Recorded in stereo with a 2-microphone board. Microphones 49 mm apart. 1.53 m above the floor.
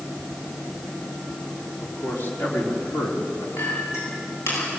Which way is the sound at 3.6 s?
60° left (ahead or behind).